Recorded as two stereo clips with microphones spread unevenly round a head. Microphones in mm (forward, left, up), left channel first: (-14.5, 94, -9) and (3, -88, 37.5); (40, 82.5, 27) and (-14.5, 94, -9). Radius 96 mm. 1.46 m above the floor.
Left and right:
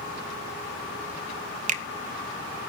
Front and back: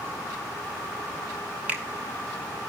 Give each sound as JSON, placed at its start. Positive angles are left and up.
{"t": 1.7, "sound": "a finger snap", "azimuth_deg": -90, "distance_m": 0.7}